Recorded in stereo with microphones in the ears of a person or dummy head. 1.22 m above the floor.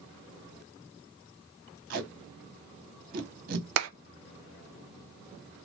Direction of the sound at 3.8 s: 75° right (ahead or behind).